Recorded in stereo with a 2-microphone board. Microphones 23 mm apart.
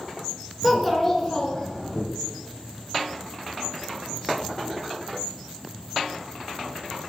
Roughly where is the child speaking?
Centre.